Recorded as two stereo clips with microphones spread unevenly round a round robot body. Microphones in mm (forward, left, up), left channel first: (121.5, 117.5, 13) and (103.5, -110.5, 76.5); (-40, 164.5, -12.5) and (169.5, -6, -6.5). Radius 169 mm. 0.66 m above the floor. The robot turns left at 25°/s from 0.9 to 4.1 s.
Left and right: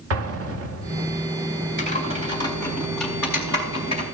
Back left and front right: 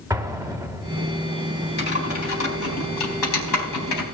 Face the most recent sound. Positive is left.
turn(degrees=145)